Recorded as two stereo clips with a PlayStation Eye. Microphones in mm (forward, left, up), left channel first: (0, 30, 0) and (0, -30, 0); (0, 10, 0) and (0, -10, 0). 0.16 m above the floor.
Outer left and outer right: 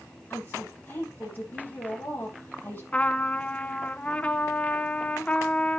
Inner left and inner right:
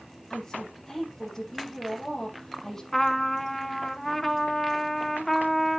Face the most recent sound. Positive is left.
turn(degrees=20)  # may be behind; listen again after turning